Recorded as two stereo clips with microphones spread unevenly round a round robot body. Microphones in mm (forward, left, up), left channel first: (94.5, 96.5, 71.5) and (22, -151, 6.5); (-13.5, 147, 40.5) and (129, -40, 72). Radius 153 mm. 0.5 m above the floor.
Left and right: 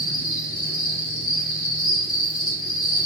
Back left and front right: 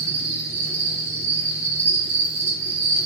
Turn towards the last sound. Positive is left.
turn(degrees=35)